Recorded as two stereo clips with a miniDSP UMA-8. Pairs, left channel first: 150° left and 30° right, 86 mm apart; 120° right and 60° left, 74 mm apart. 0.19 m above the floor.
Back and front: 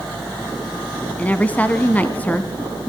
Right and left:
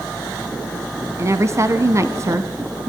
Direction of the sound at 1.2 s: 85° left.